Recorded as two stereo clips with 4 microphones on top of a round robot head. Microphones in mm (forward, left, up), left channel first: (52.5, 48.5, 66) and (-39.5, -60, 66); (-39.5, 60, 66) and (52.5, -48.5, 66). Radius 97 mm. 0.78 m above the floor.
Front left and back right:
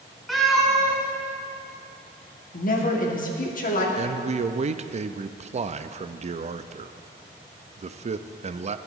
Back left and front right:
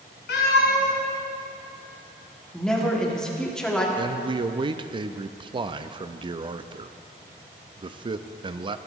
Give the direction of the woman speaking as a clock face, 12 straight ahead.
10 o'clock.